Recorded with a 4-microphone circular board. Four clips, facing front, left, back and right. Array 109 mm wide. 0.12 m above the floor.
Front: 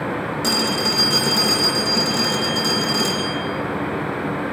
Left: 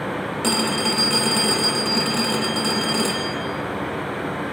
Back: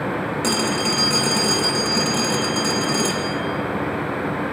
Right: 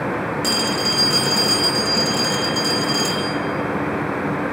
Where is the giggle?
No giggle in this recording.